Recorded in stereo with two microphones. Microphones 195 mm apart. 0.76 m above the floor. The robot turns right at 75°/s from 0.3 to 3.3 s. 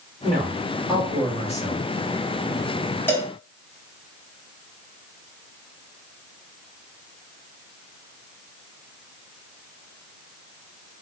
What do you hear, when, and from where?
0.2 s a man speaking: 50° right, 1.7 m; by 1.9 s 70° left, 1.7 m
3.1 s a cowbell: 10° left (ahead or behind), 0.6 m; by 3.3 s centre (ahead or behind), 0.6 m